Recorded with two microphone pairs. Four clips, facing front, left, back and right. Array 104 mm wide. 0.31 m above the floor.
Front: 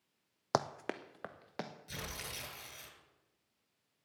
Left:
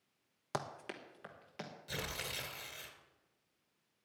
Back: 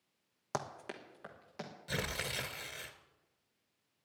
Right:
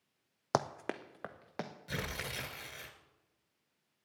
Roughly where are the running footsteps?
Ahead right.